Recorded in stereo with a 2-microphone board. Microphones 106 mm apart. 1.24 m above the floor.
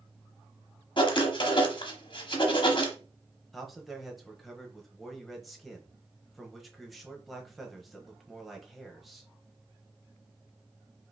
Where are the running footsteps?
I don't hear running footsteps.